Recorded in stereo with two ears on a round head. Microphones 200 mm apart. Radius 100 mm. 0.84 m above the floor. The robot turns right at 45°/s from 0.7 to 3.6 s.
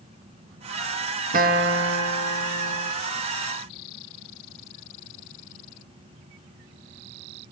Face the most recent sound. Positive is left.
turn(degrees=-35)